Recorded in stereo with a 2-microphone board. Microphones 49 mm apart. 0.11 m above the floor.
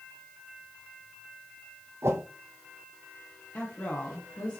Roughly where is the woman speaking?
Left.